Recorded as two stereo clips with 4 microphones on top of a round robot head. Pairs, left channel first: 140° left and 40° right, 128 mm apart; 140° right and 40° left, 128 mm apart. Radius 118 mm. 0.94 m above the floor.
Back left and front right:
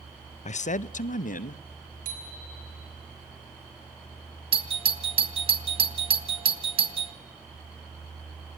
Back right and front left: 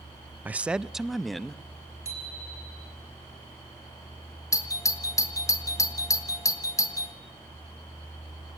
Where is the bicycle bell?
30° right, 5.5 m.